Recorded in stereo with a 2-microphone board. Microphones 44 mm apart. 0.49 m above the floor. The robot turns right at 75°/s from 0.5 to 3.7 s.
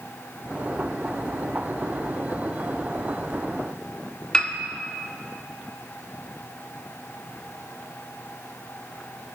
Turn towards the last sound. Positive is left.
turn(degrees=20)  # may be behind; listen again after turning